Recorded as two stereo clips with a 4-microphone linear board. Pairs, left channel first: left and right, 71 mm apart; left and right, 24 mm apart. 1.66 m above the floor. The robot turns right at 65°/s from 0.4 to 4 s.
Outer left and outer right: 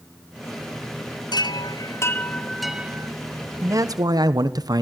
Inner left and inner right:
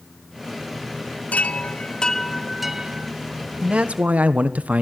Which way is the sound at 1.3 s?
95° left.